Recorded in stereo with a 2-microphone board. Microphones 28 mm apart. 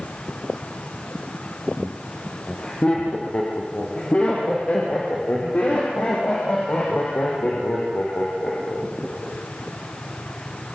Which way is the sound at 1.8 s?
40° left (ahead or behind).